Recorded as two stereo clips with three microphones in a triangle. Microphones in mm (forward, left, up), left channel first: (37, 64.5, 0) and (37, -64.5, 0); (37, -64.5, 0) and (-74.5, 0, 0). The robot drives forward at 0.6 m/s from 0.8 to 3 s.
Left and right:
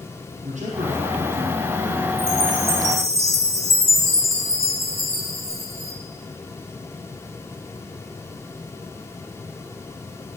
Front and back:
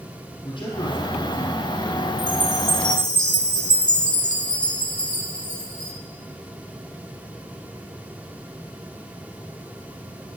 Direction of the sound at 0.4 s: 80° right.